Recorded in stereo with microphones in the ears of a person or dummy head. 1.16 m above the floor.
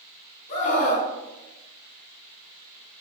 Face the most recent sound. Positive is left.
turn(degrees=40)  # may be behind; listen again after turning